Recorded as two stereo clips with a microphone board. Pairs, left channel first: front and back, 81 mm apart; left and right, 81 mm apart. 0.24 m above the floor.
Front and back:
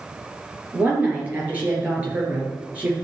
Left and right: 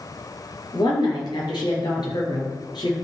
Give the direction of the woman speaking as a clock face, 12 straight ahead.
8 o'clock.